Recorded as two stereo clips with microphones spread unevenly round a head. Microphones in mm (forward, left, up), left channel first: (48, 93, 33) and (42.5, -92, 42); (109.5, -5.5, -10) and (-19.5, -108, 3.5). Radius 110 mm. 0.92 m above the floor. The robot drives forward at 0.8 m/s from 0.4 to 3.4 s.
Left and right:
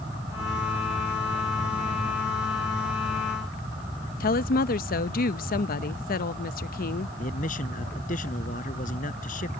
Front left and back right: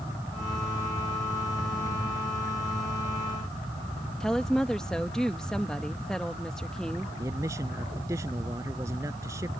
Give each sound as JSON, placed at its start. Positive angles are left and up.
{"t": 4.2, "sound": "a woman speaking", "azimuth_deg": 125}
{"t": 7.2, "sound": "a man speaking", "azimuth_deg": 140}